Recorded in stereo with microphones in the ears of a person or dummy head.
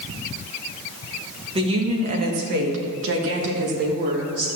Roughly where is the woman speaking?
Right.